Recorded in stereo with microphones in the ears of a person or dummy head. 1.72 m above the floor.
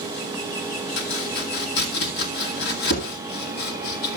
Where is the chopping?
60° left (ahead or behind), 2.0 m.